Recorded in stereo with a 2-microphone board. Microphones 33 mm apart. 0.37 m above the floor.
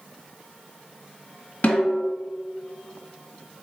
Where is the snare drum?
45° left (ahead or behind), 1.4 m.